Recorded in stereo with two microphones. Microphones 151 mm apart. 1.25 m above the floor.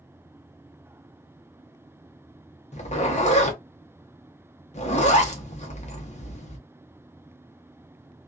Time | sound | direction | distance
2.7 | a zipper | 50° left (ahead or behind) | 0.8 m